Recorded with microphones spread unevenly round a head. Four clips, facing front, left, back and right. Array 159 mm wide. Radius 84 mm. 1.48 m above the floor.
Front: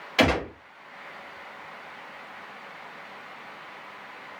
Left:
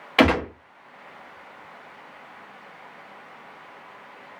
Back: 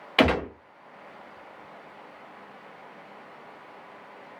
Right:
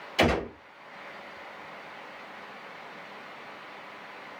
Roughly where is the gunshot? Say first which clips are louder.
Left 6 dB, back 1 dB; left.